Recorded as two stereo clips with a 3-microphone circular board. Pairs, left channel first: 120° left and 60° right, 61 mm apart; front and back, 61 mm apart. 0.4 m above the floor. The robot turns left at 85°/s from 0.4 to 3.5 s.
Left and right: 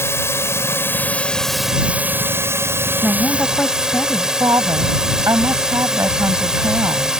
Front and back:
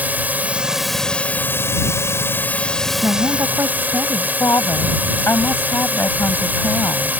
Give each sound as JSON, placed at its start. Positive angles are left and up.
{"t": 0.0, "sound": "a drone", "azimuth_deg": 130}
{"t": 3.0, "sound": "a woman speaking", "azimuth_deg": -145}
{"t": 4.4, "sound": "a woman speaking", "azimuth_deg": -35}